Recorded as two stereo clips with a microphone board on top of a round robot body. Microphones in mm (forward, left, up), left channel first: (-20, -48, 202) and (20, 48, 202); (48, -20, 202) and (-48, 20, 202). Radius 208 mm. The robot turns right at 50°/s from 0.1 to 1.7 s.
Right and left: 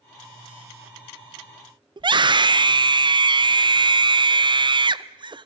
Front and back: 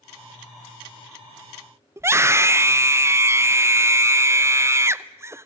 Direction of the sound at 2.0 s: 95° left.